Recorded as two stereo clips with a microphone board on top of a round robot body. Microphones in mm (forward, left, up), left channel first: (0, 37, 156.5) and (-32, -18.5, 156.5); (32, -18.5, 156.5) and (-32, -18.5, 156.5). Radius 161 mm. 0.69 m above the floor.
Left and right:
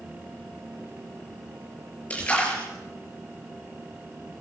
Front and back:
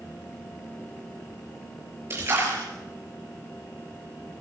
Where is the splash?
125° left, 7 m.